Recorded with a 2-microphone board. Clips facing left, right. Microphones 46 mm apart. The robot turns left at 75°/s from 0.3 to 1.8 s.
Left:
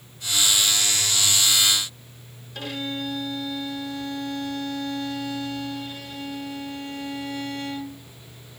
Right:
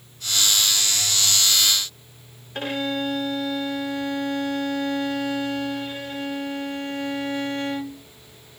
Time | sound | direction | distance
2.5 | a violin | 35° right (ahead or behind) | 0.9 m